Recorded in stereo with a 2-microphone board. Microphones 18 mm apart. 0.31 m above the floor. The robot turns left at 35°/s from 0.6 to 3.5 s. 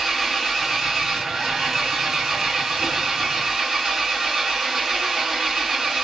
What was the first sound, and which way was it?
An engine running, 10° right.